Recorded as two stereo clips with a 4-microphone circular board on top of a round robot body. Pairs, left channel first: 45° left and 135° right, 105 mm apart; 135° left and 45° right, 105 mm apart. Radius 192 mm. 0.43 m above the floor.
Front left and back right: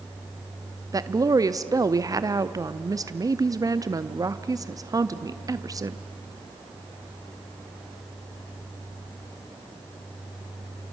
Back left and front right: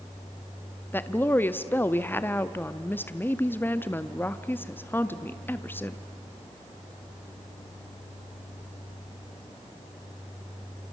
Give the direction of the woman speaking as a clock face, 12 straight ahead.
5 o'clock.